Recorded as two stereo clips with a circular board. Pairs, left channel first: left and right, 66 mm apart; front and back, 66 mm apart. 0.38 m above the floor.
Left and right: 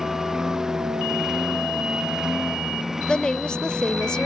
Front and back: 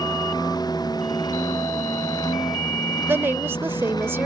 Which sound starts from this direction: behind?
A woman speaking, at 3.1 s.